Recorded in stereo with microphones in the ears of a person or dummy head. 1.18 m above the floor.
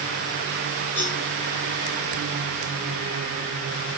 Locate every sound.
1.0 s a cowbell: 10° left (ahead or behind), 6 m